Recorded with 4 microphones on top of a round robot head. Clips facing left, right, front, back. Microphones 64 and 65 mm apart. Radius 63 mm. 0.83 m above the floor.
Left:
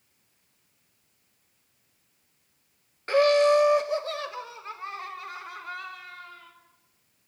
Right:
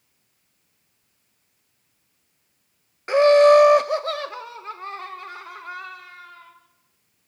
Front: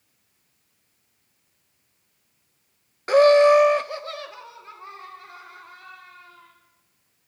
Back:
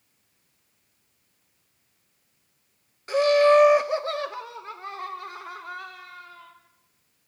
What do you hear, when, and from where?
3.1 s laughter: 20° right, 0.6 m; by 6.5 s 140° right, 3.5 m